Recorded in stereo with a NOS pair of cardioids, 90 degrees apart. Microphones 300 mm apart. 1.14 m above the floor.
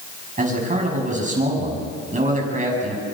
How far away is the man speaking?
About 9 m.